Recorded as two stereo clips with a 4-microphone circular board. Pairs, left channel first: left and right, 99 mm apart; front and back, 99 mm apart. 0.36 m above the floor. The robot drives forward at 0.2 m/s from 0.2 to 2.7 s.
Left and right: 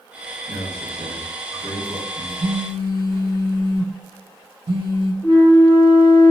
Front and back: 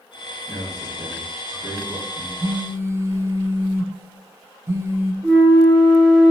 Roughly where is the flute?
Left.